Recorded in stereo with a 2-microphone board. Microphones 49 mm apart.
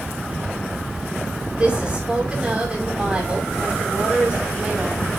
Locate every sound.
1.5 s a woman speaking: 20° right (ahead or behind), 6.5 m